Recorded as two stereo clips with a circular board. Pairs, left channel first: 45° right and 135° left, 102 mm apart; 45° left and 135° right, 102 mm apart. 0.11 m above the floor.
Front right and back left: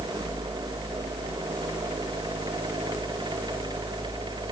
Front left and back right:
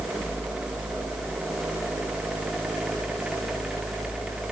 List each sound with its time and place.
Only background noise.